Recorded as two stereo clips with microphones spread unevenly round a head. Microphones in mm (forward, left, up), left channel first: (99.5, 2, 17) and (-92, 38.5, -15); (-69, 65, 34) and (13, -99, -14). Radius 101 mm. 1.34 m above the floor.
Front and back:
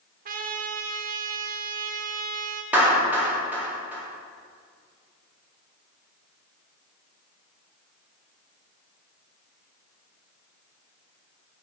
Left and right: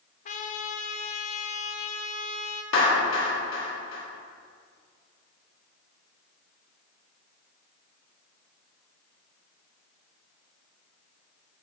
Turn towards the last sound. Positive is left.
turn(degrees=85)